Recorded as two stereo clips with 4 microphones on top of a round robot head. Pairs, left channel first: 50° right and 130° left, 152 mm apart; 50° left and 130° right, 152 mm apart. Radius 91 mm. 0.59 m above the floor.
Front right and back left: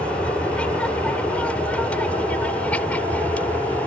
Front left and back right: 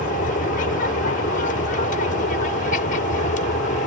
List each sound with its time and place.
0.0 s an aircraft: 35° left; by 3.9 s 30° left